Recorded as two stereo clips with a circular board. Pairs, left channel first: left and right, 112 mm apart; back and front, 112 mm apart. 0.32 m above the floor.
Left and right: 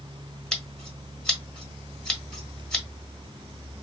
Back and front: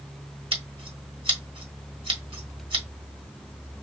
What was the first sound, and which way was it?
Scissors, 5° left.